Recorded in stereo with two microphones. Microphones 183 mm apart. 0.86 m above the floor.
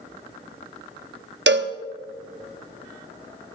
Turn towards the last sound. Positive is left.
turn(degrees=-75)  # may be behind; listen again after turning